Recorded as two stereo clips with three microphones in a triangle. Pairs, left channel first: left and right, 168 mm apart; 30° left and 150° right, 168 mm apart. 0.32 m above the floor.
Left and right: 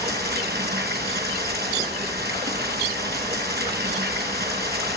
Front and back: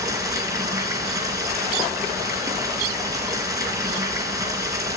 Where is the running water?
80° right, 2.5 m.